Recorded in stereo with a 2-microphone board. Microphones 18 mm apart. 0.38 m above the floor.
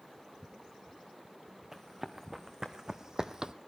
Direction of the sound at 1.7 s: 20° right (ahead or behind).